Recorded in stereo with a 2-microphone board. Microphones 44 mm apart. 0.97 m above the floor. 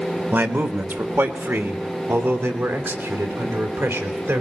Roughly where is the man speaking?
Right.